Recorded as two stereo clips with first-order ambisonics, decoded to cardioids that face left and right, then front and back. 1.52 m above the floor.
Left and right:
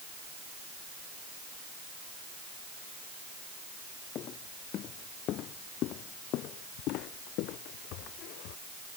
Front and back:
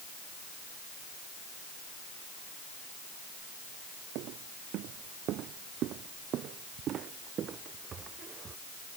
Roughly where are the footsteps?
Behind left.